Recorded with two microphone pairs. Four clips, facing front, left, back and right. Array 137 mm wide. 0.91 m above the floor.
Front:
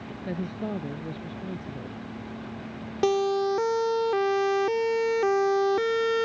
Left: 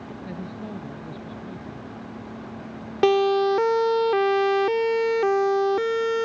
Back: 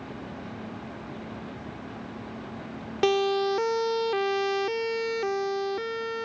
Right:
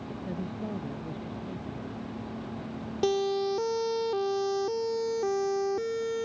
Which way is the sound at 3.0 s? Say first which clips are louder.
Left 8 dB, even; 95° left.